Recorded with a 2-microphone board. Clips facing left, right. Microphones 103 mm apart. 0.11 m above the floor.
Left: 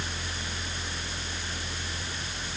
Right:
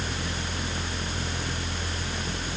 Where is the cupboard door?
No cupboard door in this recording.